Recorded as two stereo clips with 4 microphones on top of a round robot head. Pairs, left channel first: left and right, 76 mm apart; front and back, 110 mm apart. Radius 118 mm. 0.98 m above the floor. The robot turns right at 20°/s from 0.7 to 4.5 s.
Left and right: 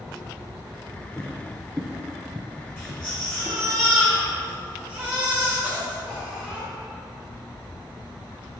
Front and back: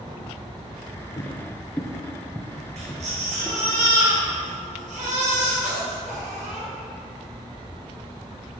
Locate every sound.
1.2 s footsteps: 35° left, 1.0 m; by 3.6 s 70° right, 1.4 m
2.8 s a baby crying: 155° left, 2.5 m; by 6.7 s 170° right, 2.5 m